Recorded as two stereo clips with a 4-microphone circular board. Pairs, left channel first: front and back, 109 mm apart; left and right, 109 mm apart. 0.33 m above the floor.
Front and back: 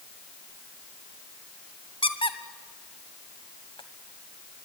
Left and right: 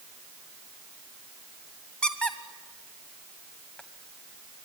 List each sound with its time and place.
2.0 s a squeak: 10° left, 1.5 m